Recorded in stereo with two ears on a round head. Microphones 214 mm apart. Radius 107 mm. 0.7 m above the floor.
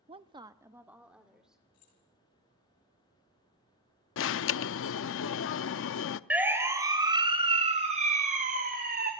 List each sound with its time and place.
0.1 s a woman speaking: 25° right (ahead or behind), 0.6 m; by 1.6 s 5° right (ahead or behind), 2.5 m
1.7 s keys jangling: 65° left (ahead or behind), 9 m
4.2 s an alarm: 55° left (ahead or behind), 0.6 m
6.3 s a siren: 5° right (ahead or behind), 3 m; by 9.1 s 40° right (ahead or behind), 4.5 m